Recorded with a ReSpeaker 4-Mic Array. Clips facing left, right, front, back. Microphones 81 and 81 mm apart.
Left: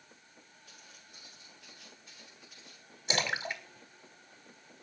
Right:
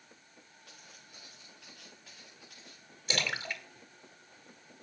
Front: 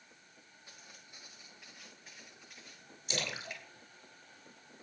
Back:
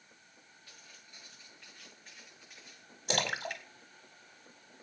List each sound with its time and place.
0.7 s footsteps: 70° right, 6.5 m; by 2.9 s 95° right, 7.5 m
3.1 s a splash: 160° left, 1.9 m